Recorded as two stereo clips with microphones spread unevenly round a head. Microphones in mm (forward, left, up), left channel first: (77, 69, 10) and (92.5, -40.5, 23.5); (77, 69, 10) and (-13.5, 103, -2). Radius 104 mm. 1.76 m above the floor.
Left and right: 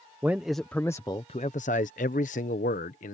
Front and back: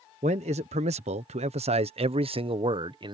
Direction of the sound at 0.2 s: 160° right.